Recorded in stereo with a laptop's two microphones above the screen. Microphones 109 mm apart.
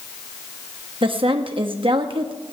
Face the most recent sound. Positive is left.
turn(degrees=-55)  # may be behind; listen again after turning